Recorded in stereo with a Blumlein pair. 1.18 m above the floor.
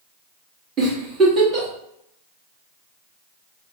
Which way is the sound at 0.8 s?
25° right.